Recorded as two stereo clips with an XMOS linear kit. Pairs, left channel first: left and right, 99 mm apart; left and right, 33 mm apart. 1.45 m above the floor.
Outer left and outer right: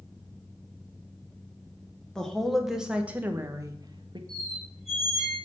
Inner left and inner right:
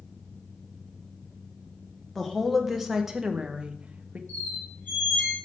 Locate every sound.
2.1 s a woman speaking: 5° left (ahead or behind), 1.4 m; by 4.2 s 50° right (ahead or behind), 0.9 m
4.3 s a squeak: 75° left (ahead or behind), 3.5 m